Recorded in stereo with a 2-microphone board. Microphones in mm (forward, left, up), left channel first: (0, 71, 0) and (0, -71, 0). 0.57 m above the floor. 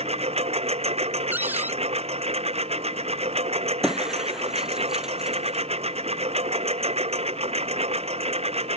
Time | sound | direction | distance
0.0 | a lawn mower | 50° right (ahead or behind) | ?
1.3 | a cupboard door | 15° right (ahead or behind) | ?
3.8 | breaking glass | 5° right (ahead or behind) | ?